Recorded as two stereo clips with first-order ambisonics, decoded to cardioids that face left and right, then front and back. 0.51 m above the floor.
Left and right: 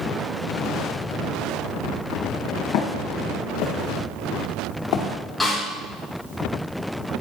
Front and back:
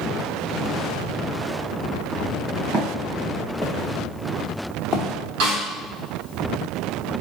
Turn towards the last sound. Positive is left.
turn(degrees=180)